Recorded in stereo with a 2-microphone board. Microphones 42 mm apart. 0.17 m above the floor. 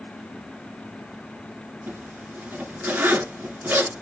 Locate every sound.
1.9 s a zipper: 50° right (ahead or behind), 1.2 m